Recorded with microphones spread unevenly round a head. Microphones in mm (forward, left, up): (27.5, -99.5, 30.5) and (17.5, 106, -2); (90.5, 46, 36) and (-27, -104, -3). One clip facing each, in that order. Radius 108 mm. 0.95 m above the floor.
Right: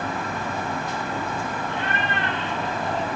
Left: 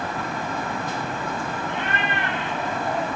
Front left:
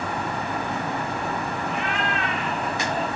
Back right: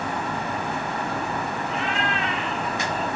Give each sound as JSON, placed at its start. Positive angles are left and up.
{"t": 1.7, "sound": "a cat meowing", "azimuth_deg": 20, "distance_m": 4.0}